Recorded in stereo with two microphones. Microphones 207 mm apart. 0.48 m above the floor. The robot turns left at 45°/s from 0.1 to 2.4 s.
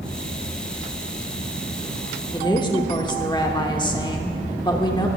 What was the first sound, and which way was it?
A woman speaking, 20° left (ahead or behind).